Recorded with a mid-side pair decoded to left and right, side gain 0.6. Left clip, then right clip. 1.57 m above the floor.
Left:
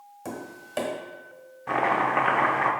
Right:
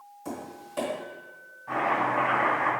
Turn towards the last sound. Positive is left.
turn(degrees=65)